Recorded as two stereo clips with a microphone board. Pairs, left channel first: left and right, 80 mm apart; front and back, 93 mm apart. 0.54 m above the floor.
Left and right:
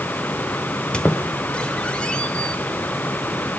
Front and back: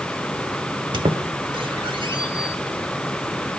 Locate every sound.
0.9 s a squeak: 165° left, 1.0 m